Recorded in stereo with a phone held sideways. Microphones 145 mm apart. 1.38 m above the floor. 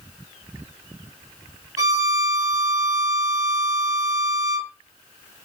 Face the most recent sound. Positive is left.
turn(degrees=-25)  # may be behind; listen again after turning